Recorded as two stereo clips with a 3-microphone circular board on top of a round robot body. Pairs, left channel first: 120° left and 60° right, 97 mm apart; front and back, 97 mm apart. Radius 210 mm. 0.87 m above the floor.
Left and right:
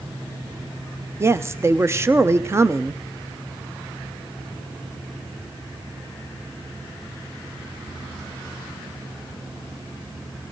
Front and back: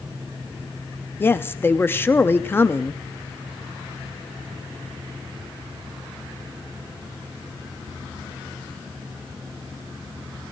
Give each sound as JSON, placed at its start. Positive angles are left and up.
{"t": 1.2, "sound": "a woman speaking", "azimuth_deg": -40, "distance_m": 1.0}